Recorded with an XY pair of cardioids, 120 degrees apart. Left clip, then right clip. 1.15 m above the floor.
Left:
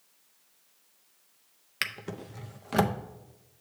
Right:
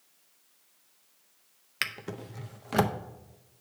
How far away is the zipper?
No zipper in this recording.